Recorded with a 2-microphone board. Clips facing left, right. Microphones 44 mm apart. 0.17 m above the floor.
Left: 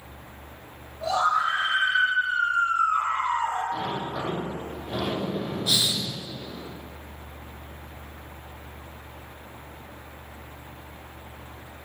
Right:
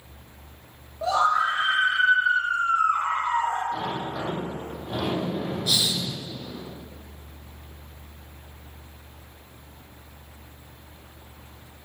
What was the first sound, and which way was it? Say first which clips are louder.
A scream: right 2 dB; 30° right (ahead or behind).